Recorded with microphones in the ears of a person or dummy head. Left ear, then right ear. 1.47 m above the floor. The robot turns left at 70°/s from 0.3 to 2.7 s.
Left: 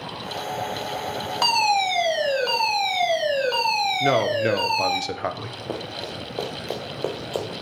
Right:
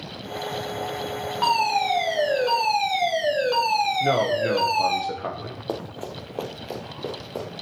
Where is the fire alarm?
100° left, 3 m; by 5.0 s 10° left, 3 m.